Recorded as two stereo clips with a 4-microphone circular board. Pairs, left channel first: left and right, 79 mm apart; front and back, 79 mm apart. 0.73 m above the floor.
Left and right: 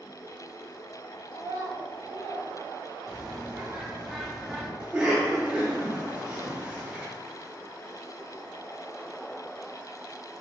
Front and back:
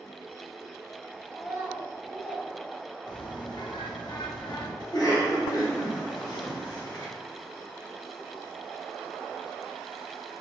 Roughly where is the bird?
Ahead.